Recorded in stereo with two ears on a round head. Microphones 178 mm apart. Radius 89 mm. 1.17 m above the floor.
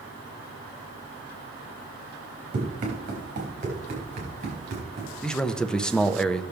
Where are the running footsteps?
40° right (ahead or behind), 4 m.